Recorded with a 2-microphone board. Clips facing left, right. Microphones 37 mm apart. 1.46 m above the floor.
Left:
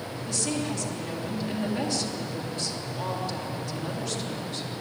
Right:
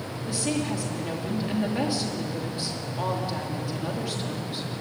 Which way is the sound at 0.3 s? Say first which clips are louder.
Right 2 dB; 15° right (ahead or behind).